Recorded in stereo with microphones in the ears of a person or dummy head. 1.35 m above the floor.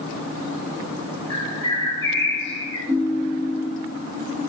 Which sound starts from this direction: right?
A ringtone, at 2.9 s.